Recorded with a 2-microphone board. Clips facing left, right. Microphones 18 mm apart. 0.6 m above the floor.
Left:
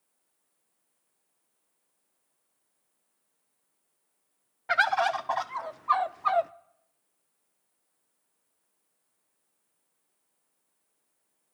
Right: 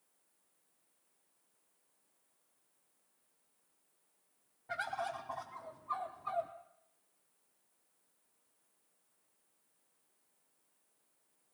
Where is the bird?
65° left (ahead or behind), 0.5 m.